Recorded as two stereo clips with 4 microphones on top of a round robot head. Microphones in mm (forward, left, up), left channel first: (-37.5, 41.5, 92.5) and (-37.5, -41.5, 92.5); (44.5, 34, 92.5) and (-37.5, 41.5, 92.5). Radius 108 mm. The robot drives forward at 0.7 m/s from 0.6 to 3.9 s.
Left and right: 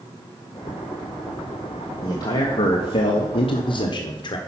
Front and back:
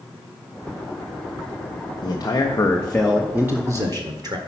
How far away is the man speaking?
About 1.1 m.